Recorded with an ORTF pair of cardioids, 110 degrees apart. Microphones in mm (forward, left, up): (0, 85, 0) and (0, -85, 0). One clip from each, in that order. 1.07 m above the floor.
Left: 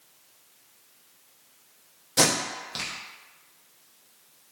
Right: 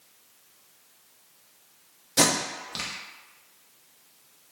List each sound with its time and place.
2.2 s tape being pulled: straight ahead, 0.7 m